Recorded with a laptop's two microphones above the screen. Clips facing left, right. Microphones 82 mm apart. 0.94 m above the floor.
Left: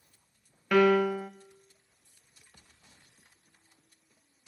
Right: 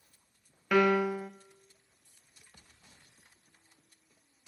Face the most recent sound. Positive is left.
turn(degrees=-5)  # may be behind; listen again after turning